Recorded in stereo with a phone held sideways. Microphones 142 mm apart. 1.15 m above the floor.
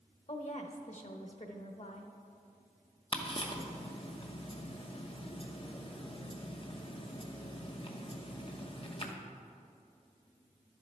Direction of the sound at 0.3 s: 55° left (ahead or behind).